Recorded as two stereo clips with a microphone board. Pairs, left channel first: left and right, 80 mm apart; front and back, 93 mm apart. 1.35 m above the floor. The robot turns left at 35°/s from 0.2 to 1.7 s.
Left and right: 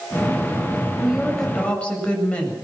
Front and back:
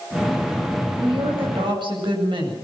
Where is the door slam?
No door slam in this recording.